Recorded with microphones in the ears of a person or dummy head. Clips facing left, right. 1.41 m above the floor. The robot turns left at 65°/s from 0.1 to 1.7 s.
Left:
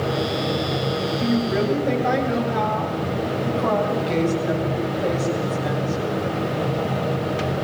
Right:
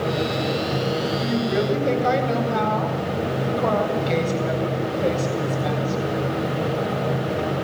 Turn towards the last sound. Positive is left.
turn(degrees=-30)